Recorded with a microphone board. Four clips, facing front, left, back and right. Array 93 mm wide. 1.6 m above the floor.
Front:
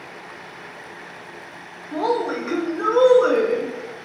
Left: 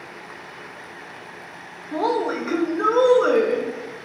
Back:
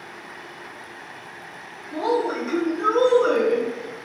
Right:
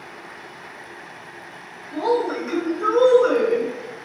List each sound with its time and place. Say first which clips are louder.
1.9 s a woman speaking: right 1 dB, front 1 dB; 60° left, 0.7 m